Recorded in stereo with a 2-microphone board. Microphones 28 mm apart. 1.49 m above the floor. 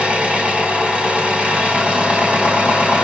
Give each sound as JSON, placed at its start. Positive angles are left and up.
{"t": 0.0, "sound": "an engine running", "side_deg": -55, "distance_m": 1.8}